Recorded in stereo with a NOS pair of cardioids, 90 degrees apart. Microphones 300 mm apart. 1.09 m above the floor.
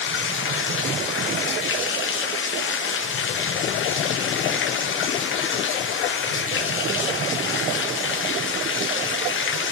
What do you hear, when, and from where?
0.0 s running water: 45° left, 1.1 m